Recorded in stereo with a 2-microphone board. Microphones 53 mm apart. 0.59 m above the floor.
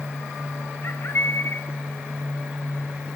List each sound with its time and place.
0.8 s a bird: 55° left (ahead or behind), 1.0 m